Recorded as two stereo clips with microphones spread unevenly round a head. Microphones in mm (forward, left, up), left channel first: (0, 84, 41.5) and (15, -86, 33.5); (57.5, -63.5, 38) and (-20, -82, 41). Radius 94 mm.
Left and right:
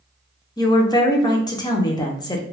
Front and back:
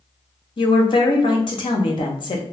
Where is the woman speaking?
25° left, 0.6 m.